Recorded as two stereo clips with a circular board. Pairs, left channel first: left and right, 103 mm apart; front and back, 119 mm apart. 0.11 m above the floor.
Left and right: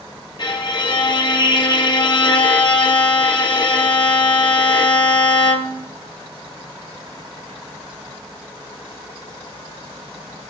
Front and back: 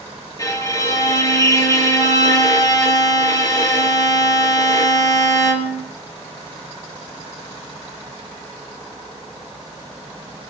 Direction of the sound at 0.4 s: 55° left.